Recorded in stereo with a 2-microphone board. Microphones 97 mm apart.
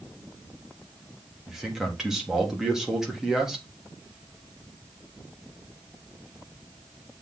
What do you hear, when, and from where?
1.5 s a man speaking: 5° right (ahead or behind), 3 m